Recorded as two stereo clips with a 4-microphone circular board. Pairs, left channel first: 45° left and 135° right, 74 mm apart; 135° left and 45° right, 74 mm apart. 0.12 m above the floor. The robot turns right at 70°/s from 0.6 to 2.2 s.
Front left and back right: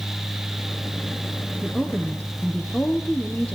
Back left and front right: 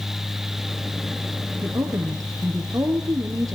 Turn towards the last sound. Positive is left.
turn(degrees=-20)